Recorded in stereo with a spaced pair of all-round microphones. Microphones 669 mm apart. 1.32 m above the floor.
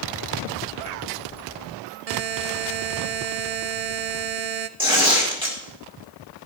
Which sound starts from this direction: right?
A buzzer, at 2.1 s.